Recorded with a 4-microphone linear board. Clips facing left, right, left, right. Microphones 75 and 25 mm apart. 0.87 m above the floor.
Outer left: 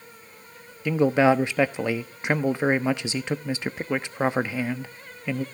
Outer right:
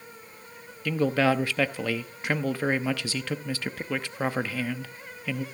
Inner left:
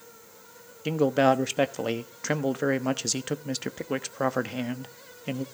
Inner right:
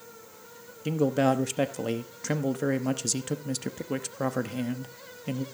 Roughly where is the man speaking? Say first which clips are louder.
Outer left 4 dB, inner left 3 dB; left.